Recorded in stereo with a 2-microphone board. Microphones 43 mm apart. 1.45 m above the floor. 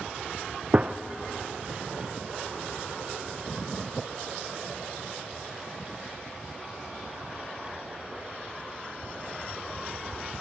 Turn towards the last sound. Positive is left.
turn(degrees=-35)  # may be behind; listen again after turning